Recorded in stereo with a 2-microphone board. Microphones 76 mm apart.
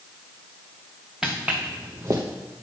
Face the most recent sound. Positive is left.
turn(degrees=-45)  # may be behind; listen again after turning